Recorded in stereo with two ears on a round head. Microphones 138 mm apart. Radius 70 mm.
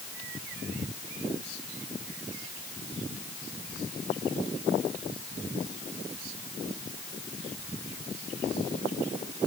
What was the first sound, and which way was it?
Only background noise.